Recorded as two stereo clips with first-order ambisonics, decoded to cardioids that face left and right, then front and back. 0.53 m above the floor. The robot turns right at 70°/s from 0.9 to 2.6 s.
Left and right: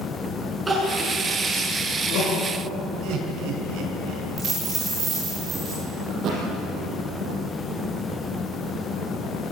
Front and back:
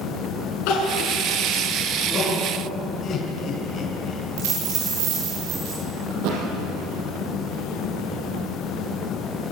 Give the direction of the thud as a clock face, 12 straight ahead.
5 o'clock.